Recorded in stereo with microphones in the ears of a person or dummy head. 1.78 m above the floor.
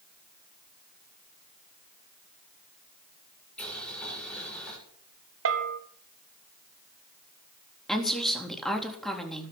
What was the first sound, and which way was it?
Boiling, 10° left (ahead or behind).